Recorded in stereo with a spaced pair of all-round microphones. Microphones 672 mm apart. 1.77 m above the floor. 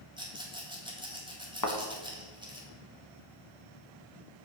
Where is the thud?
30° left (ahead or behind), 1.2 m.